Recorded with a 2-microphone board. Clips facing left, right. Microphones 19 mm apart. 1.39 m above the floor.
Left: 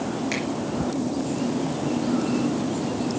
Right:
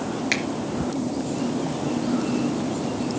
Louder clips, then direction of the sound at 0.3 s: Right 6 dB; 30° right (ahead or behind).